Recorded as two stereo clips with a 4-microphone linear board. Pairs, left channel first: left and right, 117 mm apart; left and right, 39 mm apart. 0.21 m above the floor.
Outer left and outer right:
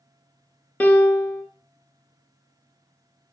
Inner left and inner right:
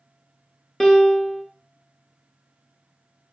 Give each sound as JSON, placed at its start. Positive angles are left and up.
{"t": 0.8, "sound": "a piano", "side_deg": 10, "distance_m": 0.5}